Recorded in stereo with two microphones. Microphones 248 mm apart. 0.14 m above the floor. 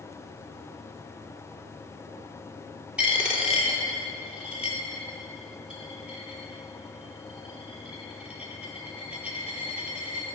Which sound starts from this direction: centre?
A dropped coin, at 3.0 s.